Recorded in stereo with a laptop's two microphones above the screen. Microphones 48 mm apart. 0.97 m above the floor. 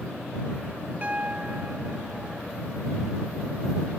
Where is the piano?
30° right (ahead or behind).